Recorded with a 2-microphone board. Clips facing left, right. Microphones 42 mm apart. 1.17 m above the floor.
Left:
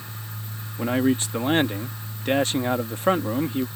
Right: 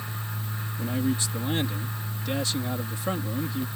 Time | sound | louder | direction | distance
0.8 | a man speaking | left 6 dB | 45° left (ahead or behind) | ?